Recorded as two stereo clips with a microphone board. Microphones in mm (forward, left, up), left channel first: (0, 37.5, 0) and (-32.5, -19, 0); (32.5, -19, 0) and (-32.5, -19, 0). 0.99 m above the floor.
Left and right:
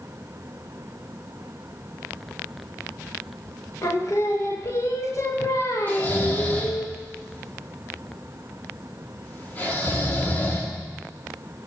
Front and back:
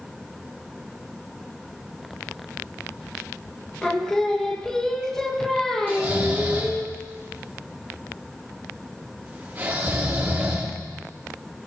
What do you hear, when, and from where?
3.8 s singing: 85° left, 1.3 m
5.9 s snoring: 120° left, 2 m